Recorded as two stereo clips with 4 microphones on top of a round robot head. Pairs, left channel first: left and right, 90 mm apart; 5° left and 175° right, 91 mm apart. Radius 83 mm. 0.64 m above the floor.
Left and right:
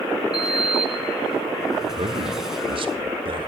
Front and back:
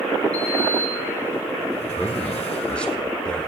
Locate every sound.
0.3 s a sliding door: 5° right, 1.8 m
1.9 s a man speaking: 75° right, 1.5 m